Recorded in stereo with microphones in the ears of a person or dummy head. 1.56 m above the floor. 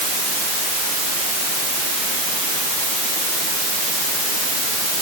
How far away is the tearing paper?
No tearing paper in this recording.